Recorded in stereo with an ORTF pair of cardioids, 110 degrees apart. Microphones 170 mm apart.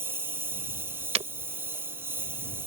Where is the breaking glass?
45° right.